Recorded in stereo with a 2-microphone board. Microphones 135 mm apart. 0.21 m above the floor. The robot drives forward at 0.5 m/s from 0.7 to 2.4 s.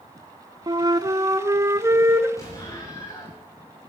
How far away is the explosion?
About 9.5 m.